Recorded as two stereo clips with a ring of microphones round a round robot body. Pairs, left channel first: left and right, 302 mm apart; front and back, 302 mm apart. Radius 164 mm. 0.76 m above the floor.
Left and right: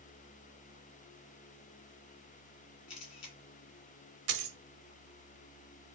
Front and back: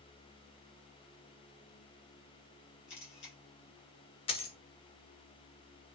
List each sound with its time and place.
2.9 s a camera shutter: 55° left, 1.5 m
4.3 s a dropped coin: 65° right, 0.7 m